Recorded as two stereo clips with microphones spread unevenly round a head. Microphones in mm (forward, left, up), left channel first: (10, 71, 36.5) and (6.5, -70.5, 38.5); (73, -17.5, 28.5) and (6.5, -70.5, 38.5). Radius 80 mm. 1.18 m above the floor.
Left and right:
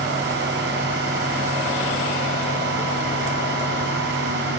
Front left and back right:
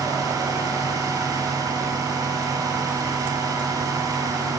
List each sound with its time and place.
0.0 s a fan: 95° right, 7 m